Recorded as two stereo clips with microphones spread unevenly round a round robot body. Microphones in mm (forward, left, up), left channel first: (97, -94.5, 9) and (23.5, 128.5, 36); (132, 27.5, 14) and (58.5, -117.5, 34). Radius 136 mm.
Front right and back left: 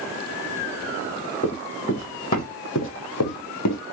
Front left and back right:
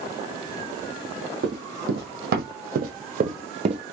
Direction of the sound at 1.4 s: 150° right.